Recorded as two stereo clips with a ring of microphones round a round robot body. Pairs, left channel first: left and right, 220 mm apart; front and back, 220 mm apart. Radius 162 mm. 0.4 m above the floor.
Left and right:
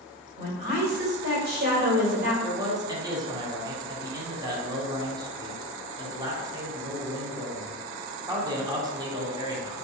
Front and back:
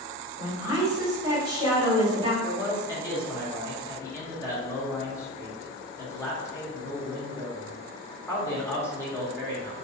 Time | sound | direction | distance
0.4 | a woman speaking | 110° right | 1.7 m
2.4 | a man speaking | 55° right | 0.8 m